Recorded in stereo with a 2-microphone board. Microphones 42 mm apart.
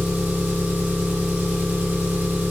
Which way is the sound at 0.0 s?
45° right (ahead or behind).